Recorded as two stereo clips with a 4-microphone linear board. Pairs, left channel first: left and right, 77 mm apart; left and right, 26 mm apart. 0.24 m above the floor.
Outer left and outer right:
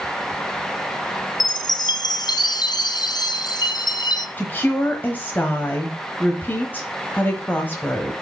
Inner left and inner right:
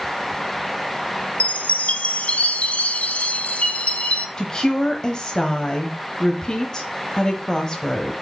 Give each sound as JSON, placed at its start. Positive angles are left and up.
{"t": 1.4, "sound": "a chime", "side_deg": 60, "distance_m": 0.8}
{"t": 4.4, "sound": "a woman speaking", "side_deg": 25, "distance_m": 1.1}